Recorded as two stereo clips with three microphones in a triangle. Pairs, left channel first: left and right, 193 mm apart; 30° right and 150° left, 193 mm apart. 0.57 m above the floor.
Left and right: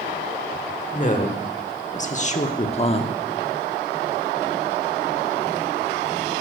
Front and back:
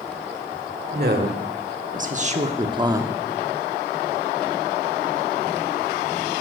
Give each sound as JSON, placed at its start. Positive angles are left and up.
{"t": 0.9, "sound": "a woman speaking", "azimuth_deg": 130, "distance_m": 1.6}